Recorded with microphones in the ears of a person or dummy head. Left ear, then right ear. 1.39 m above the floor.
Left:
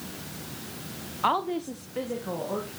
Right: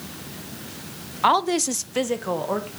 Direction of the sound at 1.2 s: 15° right (ahead or behind).